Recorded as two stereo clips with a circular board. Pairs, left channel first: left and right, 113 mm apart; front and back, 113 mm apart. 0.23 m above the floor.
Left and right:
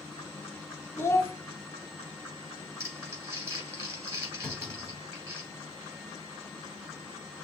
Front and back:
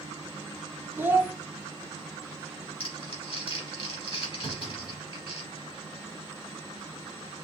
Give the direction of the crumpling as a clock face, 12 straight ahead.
1 o'clock.